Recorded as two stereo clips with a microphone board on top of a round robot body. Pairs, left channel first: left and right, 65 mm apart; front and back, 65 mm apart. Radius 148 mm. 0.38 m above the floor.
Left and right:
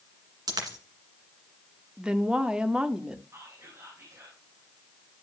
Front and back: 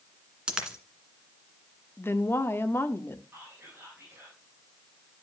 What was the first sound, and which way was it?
A dropped coin, 105° right.